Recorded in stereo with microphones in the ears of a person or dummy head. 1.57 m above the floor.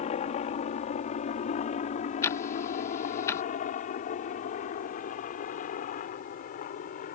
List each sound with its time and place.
0.0 s a helicopter: 35° left (ahead or behind); by 7.1 s 45° left (ahead or behind)
2.2 s ticking: 15° left (ahead or behind)